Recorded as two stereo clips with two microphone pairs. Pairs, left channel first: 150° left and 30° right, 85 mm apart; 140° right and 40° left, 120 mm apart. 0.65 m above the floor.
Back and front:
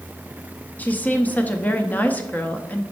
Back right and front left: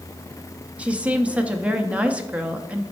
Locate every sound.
0.8 s a woman speaking: 105° left, 0.6 m